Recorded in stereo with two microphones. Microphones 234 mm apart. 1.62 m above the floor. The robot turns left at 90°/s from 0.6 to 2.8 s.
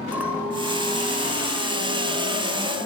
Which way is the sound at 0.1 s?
170° right.